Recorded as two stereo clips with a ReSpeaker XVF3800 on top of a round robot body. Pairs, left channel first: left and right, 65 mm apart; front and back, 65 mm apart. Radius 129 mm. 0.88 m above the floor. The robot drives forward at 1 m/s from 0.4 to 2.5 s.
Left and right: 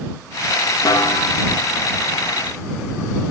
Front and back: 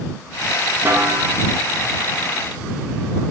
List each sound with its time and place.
0.8 s a snare drum: 115° left, 0.9 m; by 1.4 s 140° left, 1.2 m